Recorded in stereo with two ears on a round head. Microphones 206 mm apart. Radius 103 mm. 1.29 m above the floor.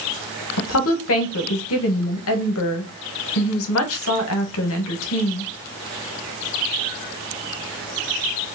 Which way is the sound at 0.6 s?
65° left (ahead or behind).